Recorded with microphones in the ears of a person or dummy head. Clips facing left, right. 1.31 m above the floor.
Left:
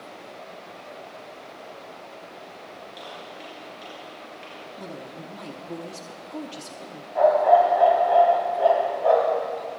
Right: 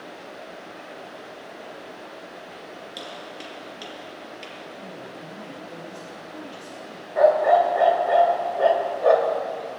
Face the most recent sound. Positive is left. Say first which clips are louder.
# even
turn(degrees=-50)  # may be behind; listen again after turning